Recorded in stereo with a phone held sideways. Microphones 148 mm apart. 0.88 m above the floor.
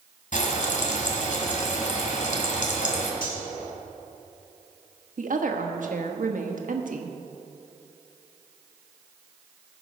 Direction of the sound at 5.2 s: 75° right (ahead or behind).